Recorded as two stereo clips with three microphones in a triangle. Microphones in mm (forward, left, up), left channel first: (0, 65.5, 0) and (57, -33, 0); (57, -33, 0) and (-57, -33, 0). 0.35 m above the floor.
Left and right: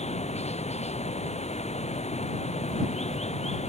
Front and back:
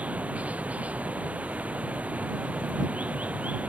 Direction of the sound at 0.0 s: 100° left.